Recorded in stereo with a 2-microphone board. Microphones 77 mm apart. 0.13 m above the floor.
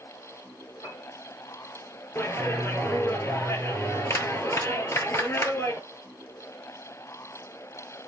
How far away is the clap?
About 1.7 m.